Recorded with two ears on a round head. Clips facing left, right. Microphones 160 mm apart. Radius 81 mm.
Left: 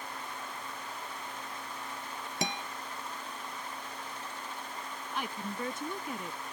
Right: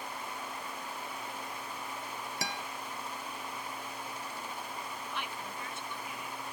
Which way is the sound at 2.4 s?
20° left (ahead or behind).